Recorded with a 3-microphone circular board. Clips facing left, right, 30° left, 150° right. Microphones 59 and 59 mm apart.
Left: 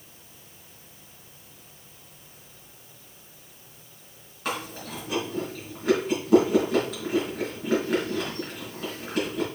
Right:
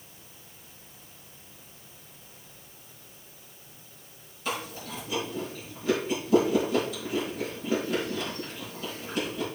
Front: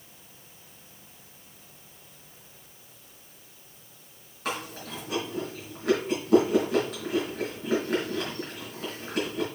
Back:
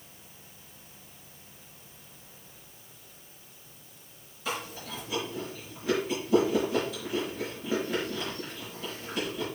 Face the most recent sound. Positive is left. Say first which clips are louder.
# left 2 dB, front 2 dB
turn(degrees=60)